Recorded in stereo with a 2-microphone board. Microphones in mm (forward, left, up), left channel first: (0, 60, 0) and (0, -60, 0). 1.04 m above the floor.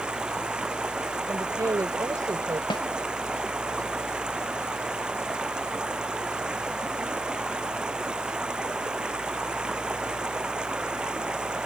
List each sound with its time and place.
0.0 s running water: 5° right (ahead or behind)
1.3 s a woman speaking: 30° right (ahead or behind)
2.7 s a snare drum: 40° left (ahead or behind)